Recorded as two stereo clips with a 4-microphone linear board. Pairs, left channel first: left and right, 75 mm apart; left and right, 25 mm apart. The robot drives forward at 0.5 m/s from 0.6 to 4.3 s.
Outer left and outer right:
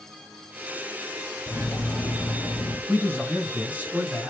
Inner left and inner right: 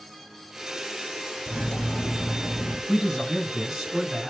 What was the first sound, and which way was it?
Cutlery clinking, 25° left (ahead or behind).